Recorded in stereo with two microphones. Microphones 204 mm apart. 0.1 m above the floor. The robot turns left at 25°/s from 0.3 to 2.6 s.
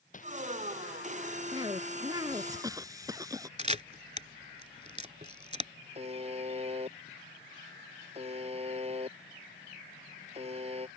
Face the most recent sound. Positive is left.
turn(degrees=-30)  # may be behind; listen again after turning